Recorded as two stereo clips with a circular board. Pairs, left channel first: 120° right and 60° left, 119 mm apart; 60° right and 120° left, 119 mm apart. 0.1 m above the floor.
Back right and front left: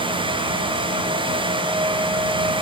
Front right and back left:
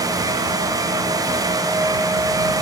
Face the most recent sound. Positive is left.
No sound to turn to.